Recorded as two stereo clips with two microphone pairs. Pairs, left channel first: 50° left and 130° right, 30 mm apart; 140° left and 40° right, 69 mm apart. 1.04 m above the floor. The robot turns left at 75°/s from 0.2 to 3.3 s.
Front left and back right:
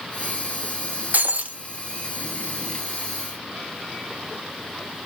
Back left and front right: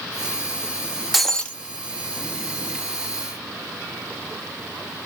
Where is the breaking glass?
125° right, 0.6 m; by 1.6 s 160° right, 0.6 m.